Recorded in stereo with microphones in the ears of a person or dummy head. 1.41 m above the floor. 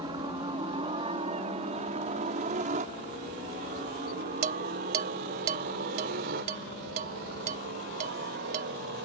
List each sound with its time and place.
0.0 s a helicopter: 20° right (ahead or behind); by 9.1 s 55° right (ahead or behind)
4.4 s dishes clattering: 40° right (ahead or behind)